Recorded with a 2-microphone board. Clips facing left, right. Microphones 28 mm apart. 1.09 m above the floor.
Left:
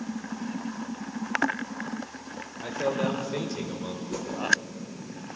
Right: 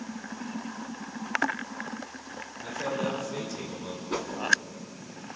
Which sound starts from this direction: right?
A whoosh, at 4.1 s.